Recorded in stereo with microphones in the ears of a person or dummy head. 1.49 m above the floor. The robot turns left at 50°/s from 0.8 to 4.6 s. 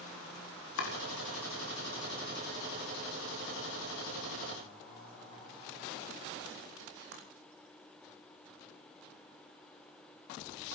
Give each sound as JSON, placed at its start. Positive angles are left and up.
{"t": 0.8, "sound": "chopping", "side_deg": 80, "distance_m": 3.5}